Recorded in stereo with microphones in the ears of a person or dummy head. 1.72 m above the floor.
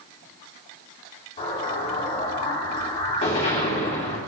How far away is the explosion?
About 2.5 m.